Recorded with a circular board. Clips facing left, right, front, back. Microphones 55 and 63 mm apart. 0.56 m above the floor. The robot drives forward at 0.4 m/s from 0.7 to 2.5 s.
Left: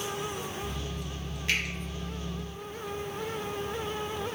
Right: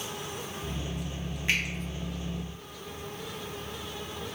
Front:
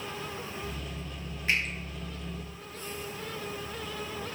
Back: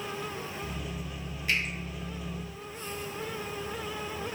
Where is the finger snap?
40° right, 1.1 m.